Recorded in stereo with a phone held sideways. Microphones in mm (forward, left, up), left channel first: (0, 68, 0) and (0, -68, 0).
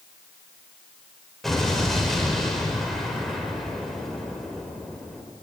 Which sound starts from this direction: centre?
An explosion, at 1.4 s.